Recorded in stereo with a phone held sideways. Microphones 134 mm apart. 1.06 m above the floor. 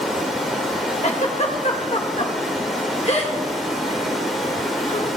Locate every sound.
0.0 s running water: centre (ahead or behind), 2.5 m
1.0 s a giggle: 60° left (ahead or behind), 1.7 m